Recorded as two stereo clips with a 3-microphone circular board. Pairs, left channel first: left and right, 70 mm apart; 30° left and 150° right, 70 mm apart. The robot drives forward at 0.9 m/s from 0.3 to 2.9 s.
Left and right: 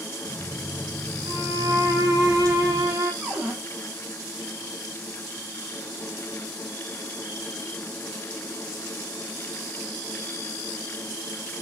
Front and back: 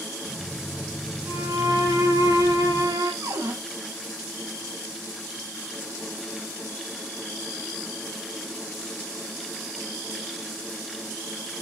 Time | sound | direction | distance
1.3 | a violin | 115° right | 3 m
3.2 | a cupboard door | 175° right | 3.5 m